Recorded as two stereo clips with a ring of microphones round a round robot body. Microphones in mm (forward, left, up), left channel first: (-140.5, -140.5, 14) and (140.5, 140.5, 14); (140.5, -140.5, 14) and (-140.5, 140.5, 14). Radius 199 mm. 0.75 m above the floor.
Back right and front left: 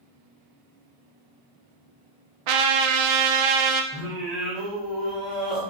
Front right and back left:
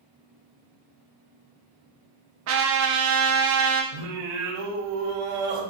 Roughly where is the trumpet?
Left.